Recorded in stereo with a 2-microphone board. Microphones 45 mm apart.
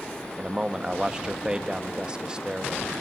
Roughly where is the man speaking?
Centre.